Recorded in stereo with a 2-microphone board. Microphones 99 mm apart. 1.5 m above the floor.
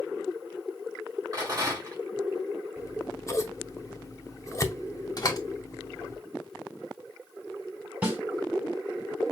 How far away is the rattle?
About 4 m.